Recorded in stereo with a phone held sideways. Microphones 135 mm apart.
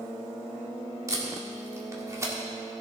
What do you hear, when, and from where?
1.1 s tape being pulled: 25° right (ahead or behind), 1.8 m